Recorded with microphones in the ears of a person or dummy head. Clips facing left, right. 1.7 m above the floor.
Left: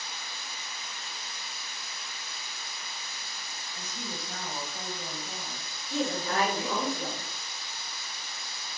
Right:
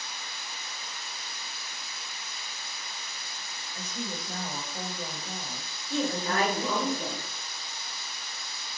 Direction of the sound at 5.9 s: 65° right (ahead or behind).